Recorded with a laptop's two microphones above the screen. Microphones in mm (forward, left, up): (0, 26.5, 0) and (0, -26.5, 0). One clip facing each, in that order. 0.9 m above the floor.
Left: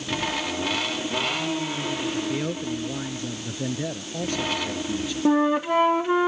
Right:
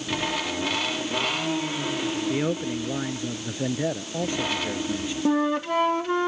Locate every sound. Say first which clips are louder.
2.3 s a man speaking: right 2 dB; 20° right (ahead or behind)
5.2 s a flute: left 3 dB; 10° left (ahead or behind)